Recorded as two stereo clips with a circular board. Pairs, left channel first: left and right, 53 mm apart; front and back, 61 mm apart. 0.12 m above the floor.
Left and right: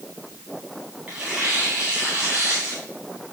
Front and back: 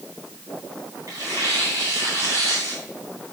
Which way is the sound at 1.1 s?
160° right.